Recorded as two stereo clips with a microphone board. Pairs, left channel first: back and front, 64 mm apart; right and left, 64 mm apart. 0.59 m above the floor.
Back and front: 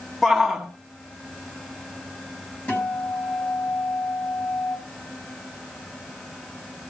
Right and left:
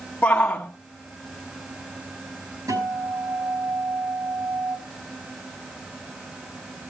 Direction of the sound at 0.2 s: 100° right.